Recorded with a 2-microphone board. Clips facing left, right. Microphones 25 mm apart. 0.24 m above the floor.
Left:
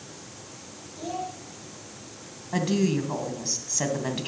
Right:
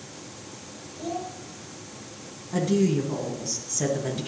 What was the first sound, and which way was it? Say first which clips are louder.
A child speaking: even; 15° left (ahead or behind).